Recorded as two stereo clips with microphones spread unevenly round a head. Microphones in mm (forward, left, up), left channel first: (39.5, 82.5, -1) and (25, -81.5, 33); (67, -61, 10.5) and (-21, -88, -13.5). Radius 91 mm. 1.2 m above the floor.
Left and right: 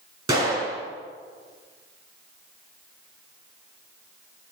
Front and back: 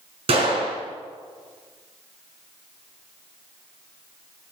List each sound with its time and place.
0.3 s a gunshot: 160° right, 5 m